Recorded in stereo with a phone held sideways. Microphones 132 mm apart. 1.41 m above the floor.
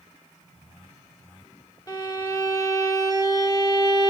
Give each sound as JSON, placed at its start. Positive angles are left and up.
{"t": 1.9, "sound": "a violin", "side_deg": 30, "distance_m": 1.1}